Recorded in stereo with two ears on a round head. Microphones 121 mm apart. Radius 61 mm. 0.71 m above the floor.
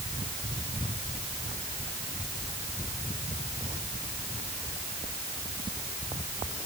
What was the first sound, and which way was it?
Only background noise.